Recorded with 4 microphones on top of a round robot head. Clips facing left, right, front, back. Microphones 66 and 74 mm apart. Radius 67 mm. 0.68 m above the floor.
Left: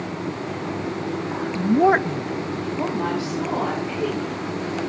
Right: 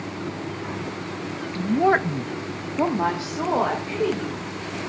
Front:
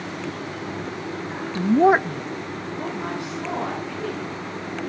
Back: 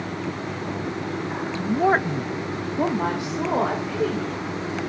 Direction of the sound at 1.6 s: 30° left.